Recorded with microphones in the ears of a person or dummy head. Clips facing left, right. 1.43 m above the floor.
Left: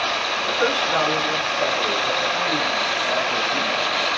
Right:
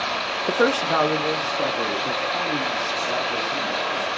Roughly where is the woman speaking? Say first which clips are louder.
Right 3 dB; right.